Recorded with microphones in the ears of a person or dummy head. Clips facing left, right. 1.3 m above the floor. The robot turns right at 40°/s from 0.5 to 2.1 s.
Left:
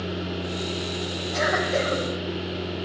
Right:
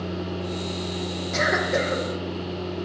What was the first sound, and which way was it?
A cough, 30° right (ahead or behind).